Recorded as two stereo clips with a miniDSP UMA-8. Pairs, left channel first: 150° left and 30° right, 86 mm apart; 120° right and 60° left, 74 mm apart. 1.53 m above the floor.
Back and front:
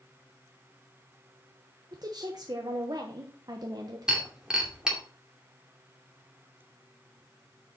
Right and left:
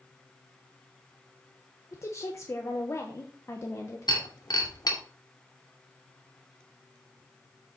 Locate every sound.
1.9 s a woman speaking: 70° right, 1.2 m
4.1 s breaking glass: 110° right, 2.5 m